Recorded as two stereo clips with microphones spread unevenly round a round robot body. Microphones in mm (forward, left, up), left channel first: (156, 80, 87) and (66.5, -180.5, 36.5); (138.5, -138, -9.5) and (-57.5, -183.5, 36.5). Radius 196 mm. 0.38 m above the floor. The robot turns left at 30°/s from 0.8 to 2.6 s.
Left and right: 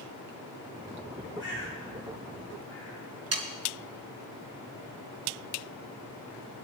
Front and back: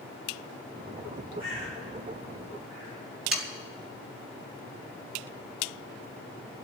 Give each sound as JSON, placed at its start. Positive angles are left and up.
{"t": 1.4, "sound": "a bird", "azimuth_deg": -170, "distance_m": 9.5}
{"t": 3.3, "sound": "sawing", "azimuth_deg": -80, "distance_m": 3.5}